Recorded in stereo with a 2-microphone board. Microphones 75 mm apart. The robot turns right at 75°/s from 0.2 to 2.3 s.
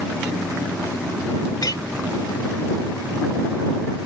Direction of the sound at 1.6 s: 50° left (ahead or behind).